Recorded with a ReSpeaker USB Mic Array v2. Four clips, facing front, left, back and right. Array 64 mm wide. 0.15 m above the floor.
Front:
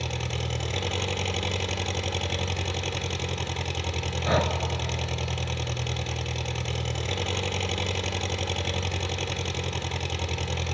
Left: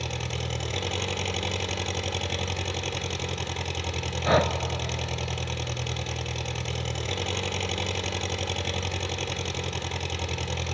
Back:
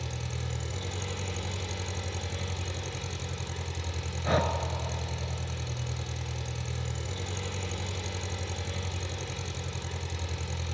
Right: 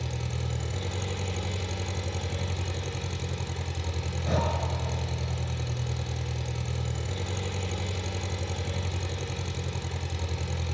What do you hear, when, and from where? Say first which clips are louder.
0.0 s an engine running: left 2 dB, front 6 dB; 40° left, 1.7 m
4.2 s breathing: left 7 dB, front 2 dB; 75° left, 1.0 m